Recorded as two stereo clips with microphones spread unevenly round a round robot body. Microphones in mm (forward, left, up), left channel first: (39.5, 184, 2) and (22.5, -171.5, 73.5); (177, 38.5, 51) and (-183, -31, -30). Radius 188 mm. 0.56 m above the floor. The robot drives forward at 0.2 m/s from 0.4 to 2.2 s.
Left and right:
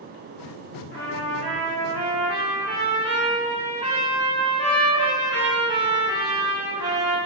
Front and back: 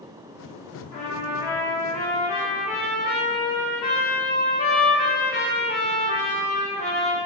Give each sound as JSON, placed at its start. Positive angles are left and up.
{"t": 0.9, "sound": "a trumpet", "azimuth_deg": 90, "distance_m": 0.9}